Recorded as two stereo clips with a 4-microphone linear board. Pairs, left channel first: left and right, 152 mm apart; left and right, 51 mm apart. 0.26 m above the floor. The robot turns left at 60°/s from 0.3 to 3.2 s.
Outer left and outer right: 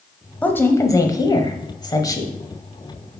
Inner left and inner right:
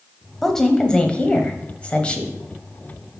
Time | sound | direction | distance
0.4 | a woman speaking | 10° left (ahead or behind) | 1.0 m